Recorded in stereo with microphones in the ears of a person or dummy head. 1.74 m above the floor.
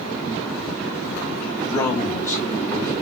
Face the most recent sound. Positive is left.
turn(degrees=20)  # may be behind; listen again after turning